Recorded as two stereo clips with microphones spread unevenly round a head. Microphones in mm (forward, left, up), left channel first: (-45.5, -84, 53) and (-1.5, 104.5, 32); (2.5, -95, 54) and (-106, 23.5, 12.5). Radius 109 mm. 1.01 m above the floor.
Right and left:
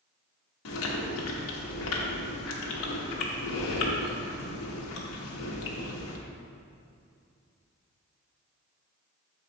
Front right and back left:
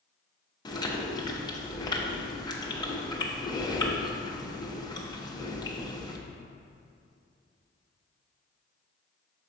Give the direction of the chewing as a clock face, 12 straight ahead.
4 o'clock.